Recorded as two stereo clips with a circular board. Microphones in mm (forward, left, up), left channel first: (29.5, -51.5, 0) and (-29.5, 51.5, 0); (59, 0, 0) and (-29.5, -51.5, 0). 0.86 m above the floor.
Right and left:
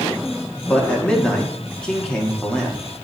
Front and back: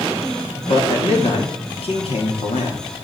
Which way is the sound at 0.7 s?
25° left.